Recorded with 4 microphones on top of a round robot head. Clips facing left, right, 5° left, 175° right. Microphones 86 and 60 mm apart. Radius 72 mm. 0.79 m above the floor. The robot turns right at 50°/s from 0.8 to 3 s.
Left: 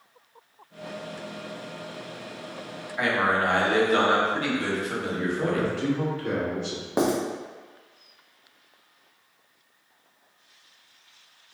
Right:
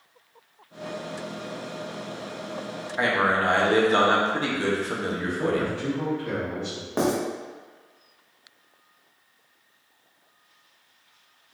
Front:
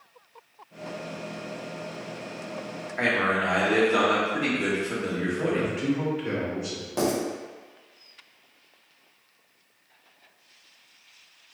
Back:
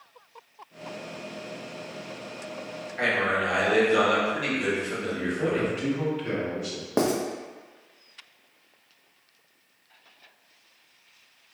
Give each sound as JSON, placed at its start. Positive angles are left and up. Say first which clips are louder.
{"t": 3.0, "sound": "a man speaking", "louder": "right 1 dB, front 1 dB", "azimuth_deg": -45, "distance_m": 1.0}
{"t": 5.1, "sound": "a man speaking", "louder": "even, even", "azimuth_deg": 75, "distance_m": 1.5}
{"t": 7.0, "sound": "writing", "louder": "even, back 2 dB", "azimuth_deg": 165, "distance_m": 0.8}